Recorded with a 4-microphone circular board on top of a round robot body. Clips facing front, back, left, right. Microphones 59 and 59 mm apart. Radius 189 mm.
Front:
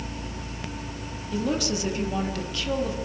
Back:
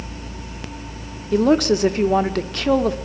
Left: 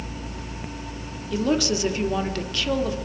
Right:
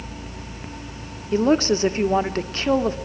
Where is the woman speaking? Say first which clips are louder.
Back 11 dB, right 5 dB; 145° right, 2 m.